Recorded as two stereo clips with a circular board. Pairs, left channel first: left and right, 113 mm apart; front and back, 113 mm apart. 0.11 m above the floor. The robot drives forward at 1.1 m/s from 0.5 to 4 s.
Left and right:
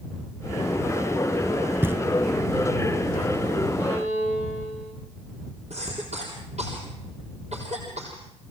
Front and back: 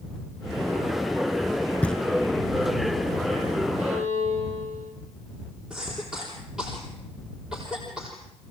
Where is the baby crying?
I don't hear a baby crying.